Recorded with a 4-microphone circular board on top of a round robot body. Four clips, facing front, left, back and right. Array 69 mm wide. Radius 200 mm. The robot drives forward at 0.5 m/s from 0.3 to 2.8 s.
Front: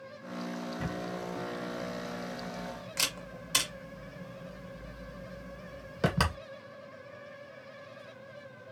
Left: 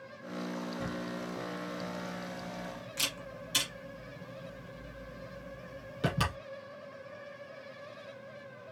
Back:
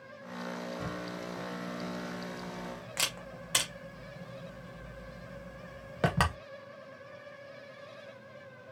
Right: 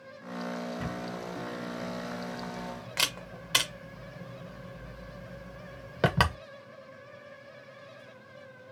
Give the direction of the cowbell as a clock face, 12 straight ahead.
No cowbell in this recording.